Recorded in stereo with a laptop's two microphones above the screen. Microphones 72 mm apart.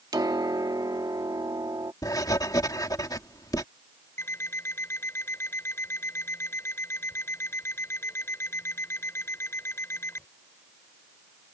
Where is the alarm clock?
35° left (ahead or behind).